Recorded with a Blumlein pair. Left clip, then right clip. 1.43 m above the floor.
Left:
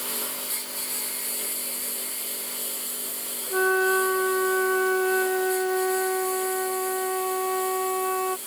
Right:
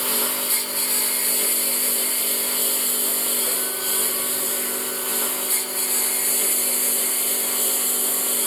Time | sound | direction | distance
0.0 | a lawn mower | 65° right | ?
3.5 | a flute | 55° left | ?